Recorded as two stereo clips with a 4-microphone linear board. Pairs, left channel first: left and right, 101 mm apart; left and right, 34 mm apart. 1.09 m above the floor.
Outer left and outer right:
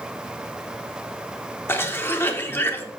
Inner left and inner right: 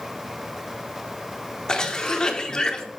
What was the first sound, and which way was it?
A cough, 25° left (ahead or behind).